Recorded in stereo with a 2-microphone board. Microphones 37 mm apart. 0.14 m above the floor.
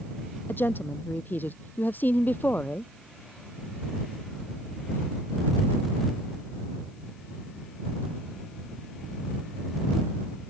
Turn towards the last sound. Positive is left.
turn(degrees=50)  # may be behind; listen again after turning